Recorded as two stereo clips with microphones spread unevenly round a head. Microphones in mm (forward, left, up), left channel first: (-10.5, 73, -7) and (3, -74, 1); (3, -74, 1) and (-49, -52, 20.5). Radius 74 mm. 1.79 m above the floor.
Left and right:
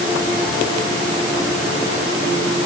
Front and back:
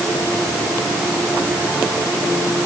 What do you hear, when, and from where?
Only background noise.